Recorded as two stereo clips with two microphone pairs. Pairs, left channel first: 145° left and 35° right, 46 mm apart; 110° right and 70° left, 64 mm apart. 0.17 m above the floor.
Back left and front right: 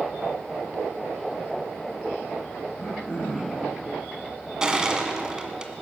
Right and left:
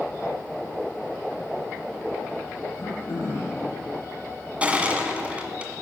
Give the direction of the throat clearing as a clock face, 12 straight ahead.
5 o'clock.